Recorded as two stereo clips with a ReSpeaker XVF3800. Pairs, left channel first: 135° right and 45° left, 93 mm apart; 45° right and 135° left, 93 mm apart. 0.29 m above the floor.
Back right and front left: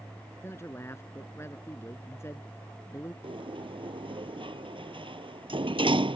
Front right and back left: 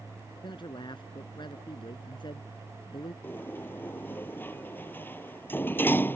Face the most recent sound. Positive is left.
turn(degrees=25)